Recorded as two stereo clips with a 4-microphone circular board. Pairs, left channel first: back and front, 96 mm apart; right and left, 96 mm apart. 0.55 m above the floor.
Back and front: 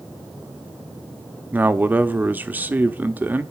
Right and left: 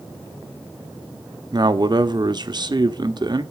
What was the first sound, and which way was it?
A man speaking, 65° left.